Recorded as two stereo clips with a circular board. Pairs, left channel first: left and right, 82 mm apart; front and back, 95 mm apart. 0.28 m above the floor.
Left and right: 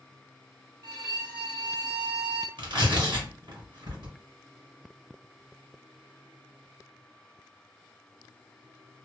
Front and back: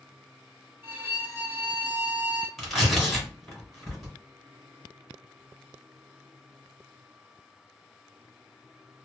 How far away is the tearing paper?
About 2.0 m.